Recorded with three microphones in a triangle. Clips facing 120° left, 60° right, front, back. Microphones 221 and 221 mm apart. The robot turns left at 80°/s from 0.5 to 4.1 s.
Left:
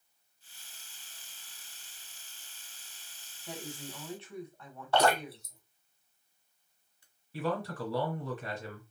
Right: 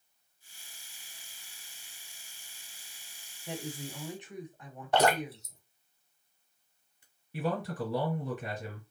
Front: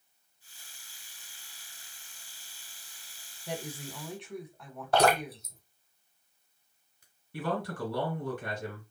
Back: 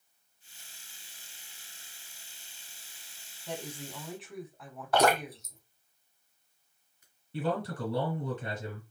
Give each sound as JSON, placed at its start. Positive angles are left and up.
{"t": 3.5, "sound": "a woman speaking", "azimuth_deg": -45, "distance_m": 1.0}
{"t": 4.9, "sound": "dripping", "azimuth_deg": -15, "distance_m": 1.3}
{"t": 7.3, "sound": "a man speaking", "azimuth_deg": -125, "distance_m": 2.0}